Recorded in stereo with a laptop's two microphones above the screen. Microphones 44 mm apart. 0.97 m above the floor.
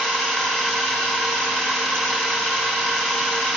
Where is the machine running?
20° left (ahead or behind), 3.5 m.